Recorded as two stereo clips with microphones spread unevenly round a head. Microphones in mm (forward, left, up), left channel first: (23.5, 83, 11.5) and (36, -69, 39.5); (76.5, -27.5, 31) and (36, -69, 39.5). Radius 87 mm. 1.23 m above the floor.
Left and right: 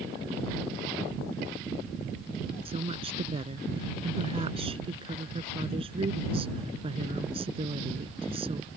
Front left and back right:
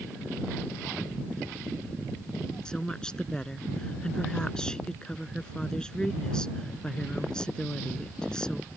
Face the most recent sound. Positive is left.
turn(degrees=-30)